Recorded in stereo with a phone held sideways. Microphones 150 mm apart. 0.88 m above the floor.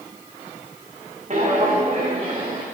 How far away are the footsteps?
About 4 m.